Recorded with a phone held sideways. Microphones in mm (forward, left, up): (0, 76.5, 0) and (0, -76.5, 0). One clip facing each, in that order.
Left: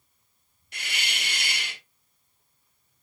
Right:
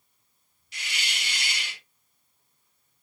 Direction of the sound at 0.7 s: 55° left (ahead or behind).